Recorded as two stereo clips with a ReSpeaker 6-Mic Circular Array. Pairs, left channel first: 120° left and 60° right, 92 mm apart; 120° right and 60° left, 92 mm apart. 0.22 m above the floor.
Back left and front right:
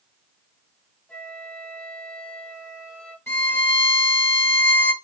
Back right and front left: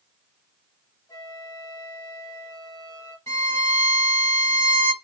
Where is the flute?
165° right, 2 m.